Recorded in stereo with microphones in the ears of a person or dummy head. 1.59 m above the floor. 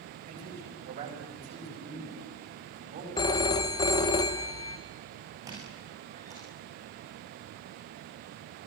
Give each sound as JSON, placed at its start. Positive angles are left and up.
{"t": 0.2, "sound": "a man speaking", "side_deg": -45, "distance_m": 8.5}
{"t": 3.2, "sound": "a phone ringing", "side_deg": 20, "distance_m": 0.9}
{"t": 5.5, "sound": "a squeak", "side_deg": -25, "distance_m": 6.5}